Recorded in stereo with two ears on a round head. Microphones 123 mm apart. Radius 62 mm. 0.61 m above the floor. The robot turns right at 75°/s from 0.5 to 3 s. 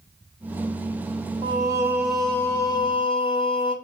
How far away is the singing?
About 1.2 m.